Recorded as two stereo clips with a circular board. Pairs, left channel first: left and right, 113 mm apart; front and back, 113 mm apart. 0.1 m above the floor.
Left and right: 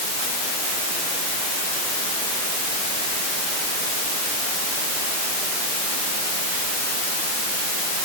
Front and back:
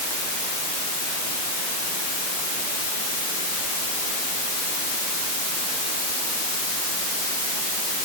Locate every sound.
Only background noise.